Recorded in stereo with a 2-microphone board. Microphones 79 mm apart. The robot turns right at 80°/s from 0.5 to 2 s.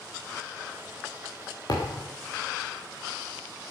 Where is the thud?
55° left (ahead or behind), 6 m; by 2.1 s 30° left (ahead or behind), 6 m.